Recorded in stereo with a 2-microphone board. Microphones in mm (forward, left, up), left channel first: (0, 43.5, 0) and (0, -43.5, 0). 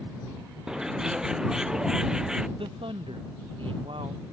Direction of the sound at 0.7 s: 5° right (ahead or behind).